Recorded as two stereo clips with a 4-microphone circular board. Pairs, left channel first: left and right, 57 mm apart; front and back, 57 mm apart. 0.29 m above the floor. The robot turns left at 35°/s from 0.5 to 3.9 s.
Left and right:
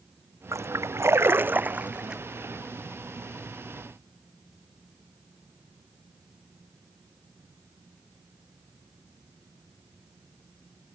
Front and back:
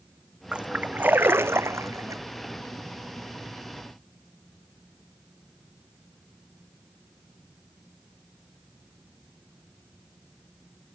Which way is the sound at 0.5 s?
105° right.